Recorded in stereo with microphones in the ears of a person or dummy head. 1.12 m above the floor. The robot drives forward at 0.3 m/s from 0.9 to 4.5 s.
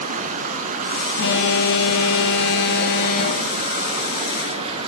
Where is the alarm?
65° left (ahead or behind), 1.8 m; by 3.7 s 55° left (ahead or behind), 2 m.